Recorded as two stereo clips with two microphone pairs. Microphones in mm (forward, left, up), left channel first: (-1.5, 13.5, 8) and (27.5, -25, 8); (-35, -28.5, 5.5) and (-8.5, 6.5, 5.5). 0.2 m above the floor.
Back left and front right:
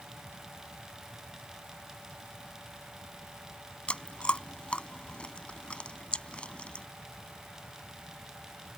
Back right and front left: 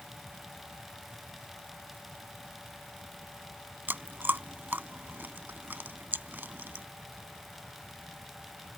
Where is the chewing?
70° left.